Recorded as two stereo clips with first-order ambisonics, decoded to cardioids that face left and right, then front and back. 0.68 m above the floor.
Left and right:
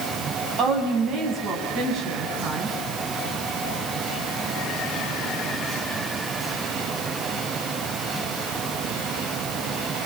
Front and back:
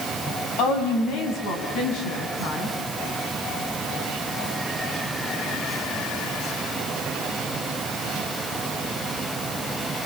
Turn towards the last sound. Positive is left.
turn(degrees=-30)